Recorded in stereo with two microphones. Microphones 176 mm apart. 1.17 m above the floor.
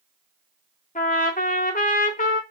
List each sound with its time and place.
0.9 s a trumpet: 45° left (ahead or behind), 0.5 m